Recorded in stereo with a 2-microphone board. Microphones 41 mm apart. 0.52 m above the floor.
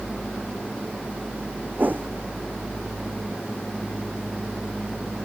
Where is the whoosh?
50° right (ahead or behind).